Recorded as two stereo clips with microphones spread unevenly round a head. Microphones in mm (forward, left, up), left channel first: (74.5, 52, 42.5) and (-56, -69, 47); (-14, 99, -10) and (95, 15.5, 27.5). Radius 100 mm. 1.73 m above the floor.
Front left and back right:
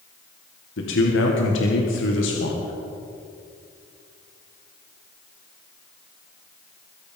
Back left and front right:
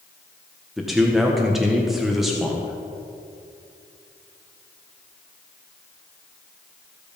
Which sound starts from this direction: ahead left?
A man speaking, at 0.8 s.